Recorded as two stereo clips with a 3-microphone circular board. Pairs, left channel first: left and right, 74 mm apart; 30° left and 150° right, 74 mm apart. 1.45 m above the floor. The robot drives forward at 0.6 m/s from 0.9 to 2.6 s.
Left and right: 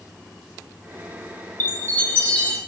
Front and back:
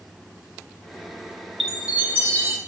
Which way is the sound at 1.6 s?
125° left.